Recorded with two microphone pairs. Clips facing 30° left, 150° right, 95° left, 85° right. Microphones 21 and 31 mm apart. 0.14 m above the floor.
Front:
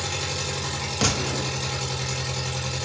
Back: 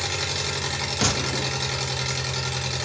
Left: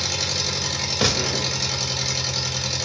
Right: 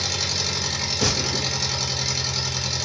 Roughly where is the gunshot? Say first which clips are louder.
Even, left 3 dB; behind left.